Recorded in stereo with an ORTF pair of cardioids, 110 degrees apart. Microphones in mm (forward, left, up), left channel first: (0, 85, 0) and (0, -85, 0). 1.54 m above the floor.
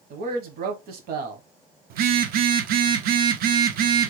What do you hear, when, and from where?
0.1 s a man speaking: 65° right, 1.1 m
1.9 s a phone buzzing: 65° right, 0.5 m